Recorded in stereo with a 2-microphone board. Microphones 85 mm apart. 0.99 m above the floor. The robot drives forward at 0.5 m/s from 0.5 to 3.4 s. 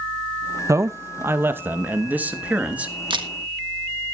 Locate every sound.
0.7 s a man speaking: 35° right (ahead or behind), 0.7 m; by 2.9 s 15° right (ahead or behind), 1.7 m
3.1 s a camera shutter: 65° right (ahead or behind), 1.5 m